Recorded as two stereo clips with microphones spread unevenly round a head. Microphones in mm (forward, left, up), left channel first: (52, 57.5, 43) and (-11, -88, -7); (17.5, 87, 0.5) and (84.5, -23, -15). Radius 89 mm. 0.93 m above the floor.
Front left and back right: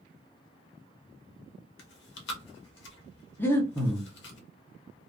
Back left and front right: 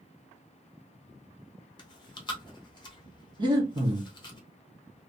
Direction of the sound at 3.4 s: 25° right.